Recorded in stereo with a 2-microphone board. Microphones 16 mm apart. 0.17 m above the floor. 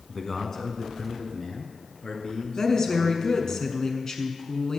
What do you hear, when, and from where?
0.1 s a man speaking: 20° left (ahead or behind), 1.3 m; by 3.6 s 65° left (ahead or behind), 3 m
2.6 s a woman speaking: 40° left (ahead or behind), 1.6 m